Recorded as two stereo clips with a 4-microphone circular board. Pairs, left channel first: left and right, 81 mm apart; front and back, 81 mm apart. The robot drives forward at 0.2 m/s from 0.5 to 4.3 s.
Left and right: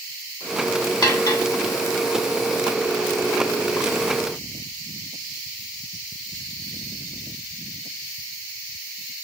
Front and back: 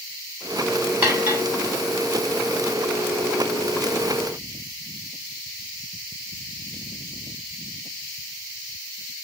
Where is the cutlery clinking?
115° left, 1.1 m.